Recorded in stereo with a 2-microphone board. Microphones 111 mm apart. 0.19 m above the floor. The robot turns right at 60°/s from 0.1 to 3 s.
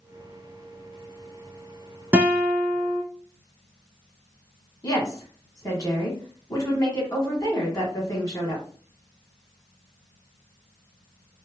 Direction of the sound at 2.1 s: 20° right.